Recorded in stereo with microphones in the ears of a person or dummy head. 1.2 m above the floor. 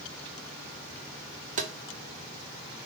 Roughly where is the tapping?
Right.